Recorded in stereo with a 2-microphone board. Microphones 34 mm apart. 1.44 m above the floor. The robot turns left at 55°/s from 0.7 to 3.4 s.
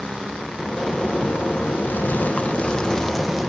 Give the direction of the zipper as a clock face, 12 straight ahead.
7 o'clock.